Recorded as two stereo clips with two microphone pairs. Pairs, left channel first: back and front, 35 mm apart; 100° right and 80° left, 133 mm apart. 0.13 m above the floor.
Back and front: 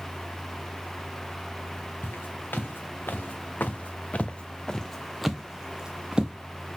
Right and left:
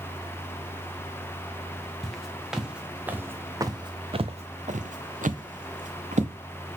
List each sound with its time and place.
2.0 s footsteps: 175° left, 1.8 m; by 6.3 s 60° left, 1.5 m